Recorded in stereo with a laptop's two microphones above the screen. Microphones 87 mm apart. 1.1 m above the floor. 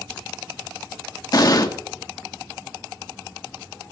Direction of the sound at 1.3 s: 50° left (ahead or behind).